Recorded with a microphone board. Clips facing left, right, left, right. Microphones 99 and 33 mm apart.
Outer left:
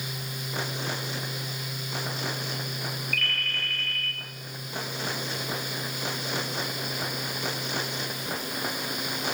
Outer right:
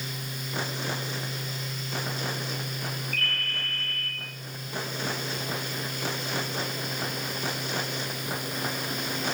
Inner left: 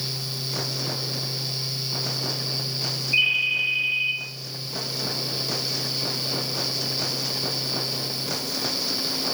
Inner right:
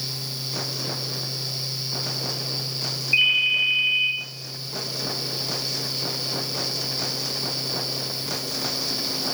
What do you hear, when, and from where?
3.1 s a ringtone: 35° right (ahead or behind), 3 m